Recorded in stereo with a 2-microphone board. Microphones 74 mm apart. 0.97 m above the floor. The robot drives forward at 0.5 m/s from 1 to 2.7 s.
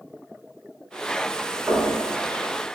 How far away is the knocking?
About 1.3 m.